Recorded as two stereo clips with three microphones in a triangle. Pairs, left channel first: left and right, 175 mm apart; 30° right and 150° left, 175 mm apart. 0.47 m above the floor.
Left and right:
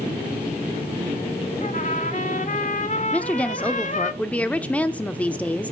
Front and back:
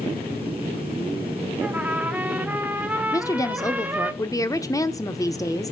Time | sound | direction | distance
1.6 | a trumpet | 75° left | 1.0 m
3.1 | a woman speaking | 15° left | 0.8 m